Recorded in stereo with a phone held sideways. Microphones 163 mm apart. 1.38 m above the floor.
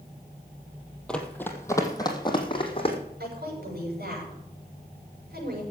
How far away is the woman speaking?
About 6.5 m.